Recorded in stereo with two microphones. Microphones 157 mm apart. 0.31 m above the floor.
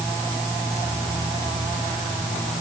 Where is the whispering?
No whispering in this recording.